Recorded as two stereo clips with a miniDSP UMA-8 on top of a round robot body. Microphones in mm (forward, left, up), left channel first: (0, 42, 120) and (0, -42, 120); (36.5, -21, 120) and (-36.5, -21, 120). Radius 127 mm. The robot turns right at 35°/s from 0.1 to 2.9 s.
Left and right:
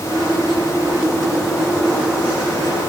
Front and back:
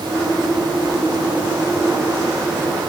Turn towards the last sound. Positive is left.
No sound to turn to.